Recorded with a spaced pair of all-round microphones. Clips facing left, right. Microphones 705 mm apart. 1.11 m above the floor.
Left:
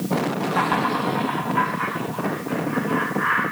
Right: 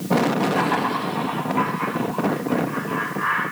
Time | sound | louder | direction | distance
0.5 | laughter | right 1 dB | 35° left (ahead or behind) | 0.9 m